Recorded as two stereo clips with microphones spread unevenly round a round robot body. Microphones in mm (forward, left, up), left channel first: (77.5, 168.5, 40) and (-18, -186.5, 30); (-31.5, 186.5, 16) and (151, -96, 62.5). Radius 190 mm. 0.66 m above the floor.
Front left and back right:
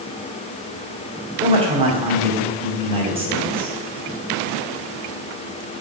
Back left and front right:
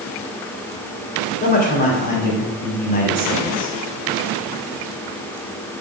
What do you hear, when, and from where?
1.4 s a man speaking: straight behind, 2.5 m